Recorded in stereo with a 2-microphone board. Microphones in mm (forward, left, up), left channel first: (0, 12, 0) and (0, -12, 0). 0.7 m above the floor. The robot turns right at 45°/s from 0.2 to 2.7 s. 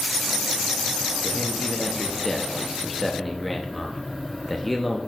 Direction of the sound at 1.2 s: 20° left (ahead or behind).